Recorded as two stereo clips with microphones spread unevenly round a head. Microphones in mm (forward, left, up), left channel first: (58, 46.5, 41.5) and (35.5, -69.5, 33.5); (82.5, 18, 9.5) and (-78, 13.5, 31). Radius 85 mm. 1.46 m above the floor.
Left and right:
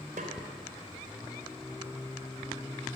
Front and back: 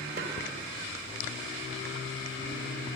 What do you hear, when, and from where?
0.2 s a snare drum: 150° right, 3 m